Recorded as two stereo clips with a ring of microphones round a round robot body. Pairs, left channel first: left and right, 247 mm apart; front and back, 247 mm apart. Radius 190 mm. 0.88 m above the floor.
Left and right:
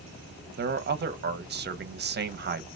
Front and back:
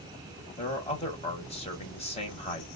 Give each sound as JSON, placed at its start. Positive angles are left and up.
{"t": 0.6, "sound": "a man speaking", "azimuth_deg": -55, "distance_m": 0.8}